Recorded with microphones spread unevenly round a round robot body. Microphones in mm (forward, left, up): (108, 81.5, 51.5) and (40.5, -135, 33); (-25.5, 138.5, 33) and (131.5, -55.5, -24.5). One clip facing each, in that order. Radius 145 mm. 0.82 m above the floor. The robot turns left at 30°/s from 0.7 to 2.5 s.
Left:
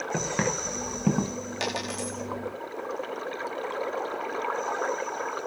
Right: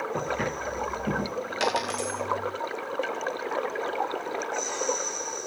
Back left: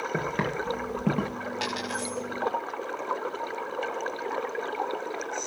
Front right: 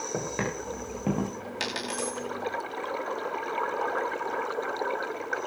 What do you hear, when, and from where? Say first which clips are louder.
0.1 s footsteps: left 5 dB, back left 1 dB; 60° left, 9.5 m; by 1.3 s 45° left, 9.5 m
1.6 s a dropped coin: right 4 dB, even; 25° right, 9 m; by 2.2 s 45° right, 9 m